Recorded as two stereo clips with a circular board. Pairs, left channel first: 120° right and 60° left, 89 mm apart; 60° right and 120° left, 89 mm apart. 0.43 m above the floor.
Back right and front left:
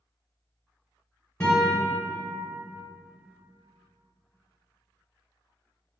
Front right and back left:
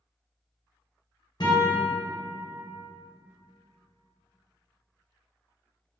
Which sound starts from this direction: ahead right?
A guitar, at 1.4 s.